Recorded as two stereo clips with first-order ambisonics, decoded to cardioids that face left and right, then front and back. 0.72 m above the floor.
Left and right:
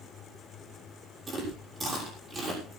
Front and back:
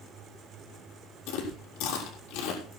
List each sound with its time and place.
1.3 s chewing: 20° right, 6 m